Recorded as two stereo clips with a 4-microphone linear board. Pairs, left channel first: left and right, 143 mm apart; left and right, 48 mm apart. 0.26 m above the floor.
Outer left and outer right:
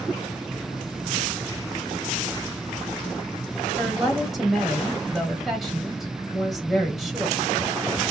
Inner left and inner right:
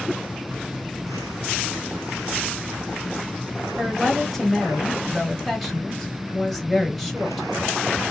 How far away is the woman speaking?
About 1.1 m.